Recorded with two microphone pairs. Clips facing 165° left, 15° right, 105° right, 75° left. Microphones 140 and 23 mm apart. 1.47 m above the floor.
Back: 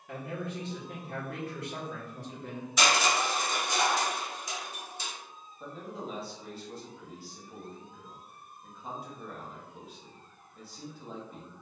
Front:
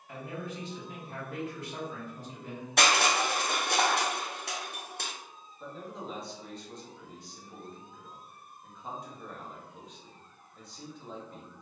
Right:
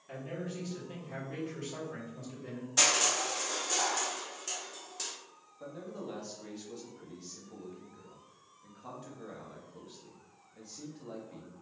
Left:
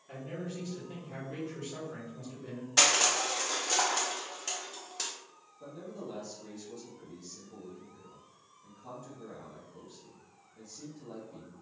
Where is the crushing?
15° left, 0.6 m.